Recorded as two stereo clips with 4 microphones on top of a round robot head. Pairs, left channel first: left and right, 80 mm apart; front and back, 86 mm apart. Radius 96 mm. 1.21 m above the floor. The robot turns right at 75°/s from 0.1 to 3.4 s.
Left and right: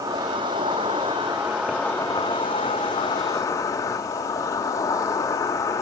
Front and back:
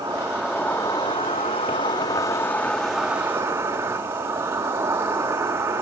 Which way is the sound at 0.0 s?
125° right.